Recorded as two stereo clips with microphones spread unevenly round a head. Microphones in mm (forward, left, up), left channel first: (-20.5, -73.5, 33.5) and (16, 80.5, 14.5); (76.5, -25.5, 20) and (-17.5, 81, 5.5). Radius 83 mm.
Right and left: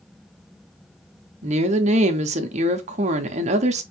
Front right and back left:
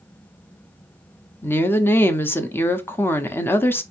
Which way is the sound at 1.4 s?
25° left.